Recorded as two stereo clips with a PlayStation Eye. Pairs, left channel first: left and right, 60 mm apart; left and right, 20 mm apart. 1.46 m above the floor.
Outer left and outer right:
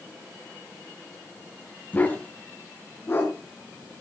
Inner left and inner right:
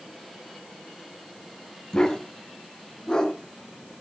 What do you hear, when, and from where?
1.9 s a dog barking: 25° left (ahead or behind), 4 m; by 3.3 s 35° left (ahead or behind), 4.5 m